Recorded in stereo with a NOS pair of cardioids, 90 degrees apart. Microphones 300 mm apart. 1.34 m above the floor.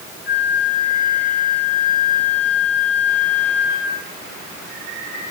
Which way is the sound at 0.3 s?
35° left.